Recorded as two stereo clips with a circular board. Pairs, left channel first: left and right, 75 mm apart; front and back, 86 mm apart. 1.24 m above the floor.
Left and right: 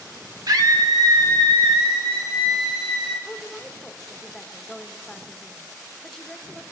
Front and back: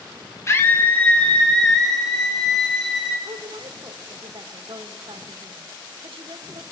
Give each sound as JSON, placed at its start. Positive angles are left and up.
{"t": 0.5, "sound": "a scream", "azimuth_deg": -55, "distance_m": 1.5}
{"t": 3.2, "sound": "a woman speaking", "azimuth_deg": 175, "distance_m": 1.1}